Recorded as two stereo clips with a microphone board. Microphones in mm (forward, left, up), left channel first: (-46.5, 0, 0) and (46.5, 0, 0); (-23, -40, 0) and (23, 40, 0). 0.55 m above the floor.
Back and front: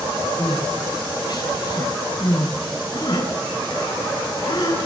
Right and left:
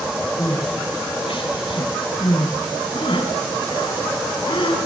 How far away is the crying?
About 5.5 m.